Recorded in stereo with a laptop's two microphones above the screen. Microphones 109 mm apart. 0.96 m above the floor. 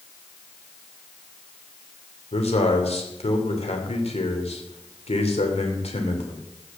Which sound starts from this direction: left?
A man speaking, at 2.3 s.